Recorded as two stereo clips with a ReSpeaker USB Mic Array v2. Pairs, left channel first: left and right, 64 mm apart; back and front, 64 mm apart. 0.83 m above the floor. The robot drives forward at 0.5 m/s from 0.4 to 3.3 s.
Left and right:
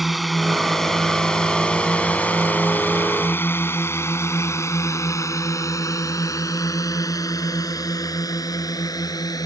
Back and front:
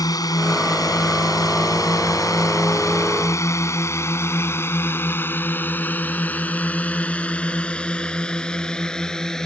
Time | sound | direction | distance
0.0 | a drone | straight behind | ?